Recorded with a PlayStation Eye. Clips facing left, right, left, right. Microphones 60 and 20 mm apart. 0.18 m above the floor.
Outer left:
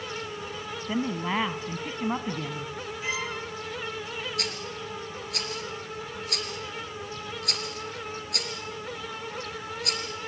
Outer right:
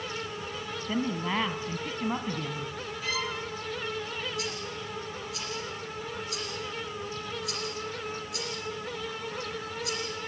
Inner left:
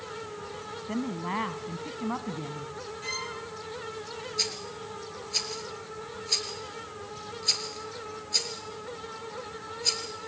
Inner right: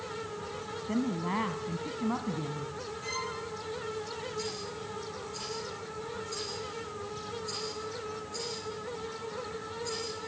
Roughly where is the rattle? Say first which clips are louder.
Outer left 1 dB, inner left 5 dB; left.